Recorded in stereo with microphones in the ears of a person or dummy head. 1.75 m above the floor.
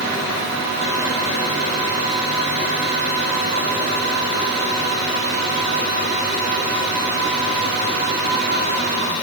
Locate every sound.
Only background noise.